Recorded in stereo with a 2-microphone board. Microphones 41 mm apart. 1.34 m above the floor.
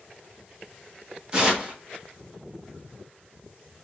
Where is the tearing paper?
20° right (ahead or behind), 1.4 m.